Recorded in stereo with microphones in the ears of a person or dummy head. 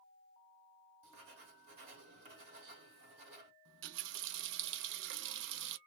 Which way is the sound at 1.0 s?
50° right (ahead or behind).